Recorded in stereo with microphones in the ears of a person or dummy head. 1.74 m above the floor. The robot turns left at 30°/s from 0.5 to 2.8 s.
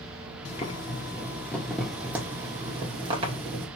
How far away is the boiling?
About 2 m.